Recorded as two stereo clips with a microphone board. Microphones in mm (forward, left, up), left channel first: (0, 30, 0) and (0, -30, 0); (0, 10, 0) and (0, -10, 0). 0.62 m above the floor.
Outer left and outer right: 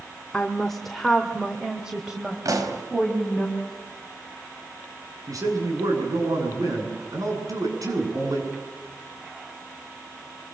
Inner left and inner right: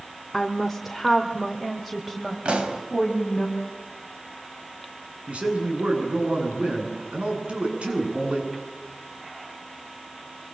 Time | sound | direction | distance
0.3 | a woman speaking | 15° left (ahead or behind) | 1.4 m
2.5 | a pop | 70° right (ahead or behind) | 4 m
5.3 | a man speaking | 75° right (ahead or behind) | 8 m